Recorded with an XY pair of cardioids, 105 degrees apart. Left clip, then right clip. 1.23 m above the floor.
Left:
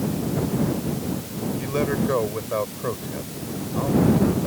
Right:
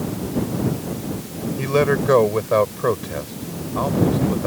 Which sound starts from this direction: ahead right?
A man speaking, at 1.6 s.